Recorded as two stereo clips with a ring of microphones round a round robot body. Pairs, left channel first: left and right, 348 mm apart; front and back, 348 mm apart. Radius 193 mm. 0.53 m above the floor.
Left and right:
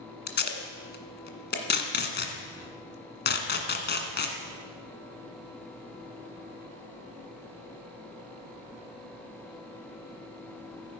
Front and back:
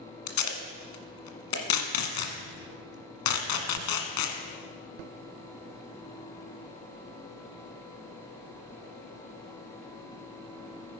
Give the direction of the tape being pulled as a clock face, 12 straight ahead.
11 o'clock.